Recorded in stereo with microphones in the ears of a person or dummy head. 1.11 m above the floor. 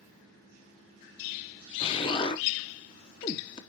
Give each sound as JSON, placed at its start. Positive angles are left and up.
{"t": 1.8, "sound": "an explosion", "side_deg": 25, "distance_m": 0.8}